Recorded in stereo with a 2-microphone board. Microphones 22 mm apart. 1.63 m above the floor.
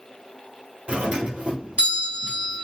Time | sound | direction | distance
0.9 | a doorbell | 60° right (ahead or behind) | 1.2 m